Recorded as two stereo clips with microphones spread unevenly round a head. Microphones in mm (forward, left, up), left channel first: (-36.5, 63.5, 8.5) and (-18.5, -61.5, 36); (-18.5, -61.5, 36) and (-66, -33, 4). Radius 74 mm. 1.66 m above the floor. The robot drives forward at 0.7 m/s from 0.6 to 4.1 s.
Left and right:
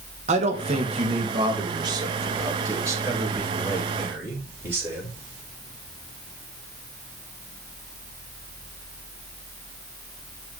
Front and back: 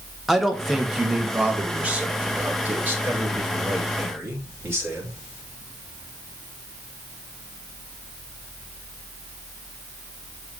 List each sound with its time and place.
0.3 s a man speaking: 115° right, 1.7 m; by 5.1 s 155° right, 3.5 m